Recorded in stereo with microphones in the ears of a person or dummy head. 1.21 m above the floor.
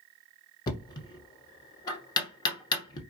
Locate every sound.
0.7 s knocking: 20° left (ahead or behind), 0.6 m